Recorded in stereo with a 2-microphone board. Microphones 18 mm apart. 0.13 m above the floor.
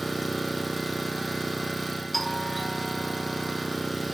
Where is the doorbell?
5° left (ahead or behind), 1.9 m.